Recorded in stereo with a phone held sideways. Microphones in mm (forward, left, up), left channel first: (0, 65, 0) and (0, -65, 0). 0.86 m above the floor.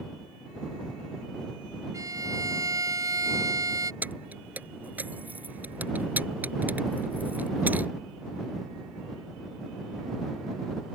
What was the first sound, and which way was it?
A violin, 25° right (ahead or behind).